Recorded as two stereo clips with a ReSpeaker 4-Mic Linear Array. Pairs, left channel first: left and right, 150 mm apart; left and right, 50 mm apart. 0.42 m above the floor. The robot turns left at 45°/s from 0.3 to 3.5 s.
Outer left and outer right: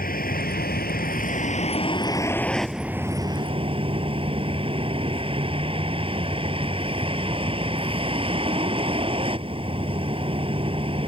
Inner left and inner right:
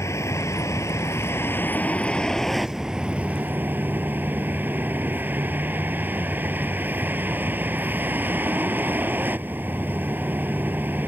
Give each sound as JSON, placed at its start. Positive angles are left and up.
{"t": 0.0, "sound": "a vehicle", "azimuth_deg": 105}